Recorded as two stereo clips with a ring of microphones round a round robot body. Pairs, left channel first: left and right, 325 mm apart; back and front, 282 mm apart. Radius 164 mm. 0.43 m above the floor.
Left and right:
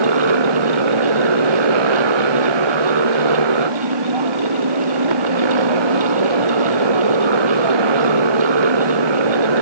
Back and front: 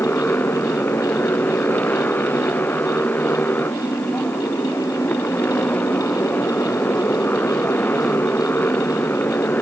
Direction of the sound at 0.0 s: 95° right.